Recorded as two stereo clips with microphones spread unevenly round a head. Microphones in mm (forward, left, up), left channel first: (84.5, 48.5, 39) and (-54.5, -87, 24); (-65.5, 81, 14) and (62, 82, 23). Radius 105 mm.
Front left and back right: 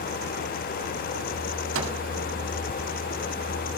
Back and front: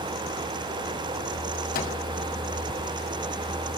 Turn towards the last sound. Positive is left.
turn(degrees=-165)